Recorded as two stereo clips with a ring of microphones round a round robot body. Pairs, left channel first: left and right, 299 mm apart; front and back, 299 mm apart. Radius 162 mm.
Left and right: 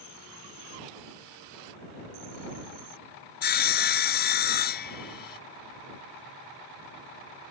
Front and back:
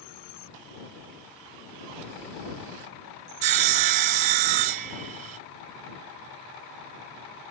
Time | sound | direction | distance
3.4 | sawing | 150° left | ?